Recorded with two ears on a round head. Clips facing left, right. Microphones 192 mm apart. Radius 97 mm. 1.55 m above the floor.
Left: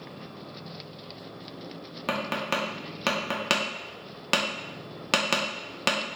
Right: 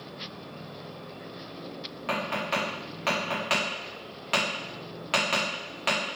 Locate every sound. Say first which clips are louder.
2.1 s tapping: left 1 dB; 55° left (ahead or behind), 0.6 m